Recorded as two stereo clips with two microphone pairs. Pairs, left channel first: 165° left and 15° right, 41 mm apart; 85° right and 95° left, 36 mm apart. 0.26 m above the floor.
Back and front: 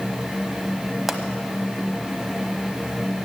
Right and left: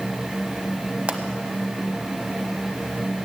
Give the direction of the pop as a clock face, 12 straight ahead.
10 o'clock.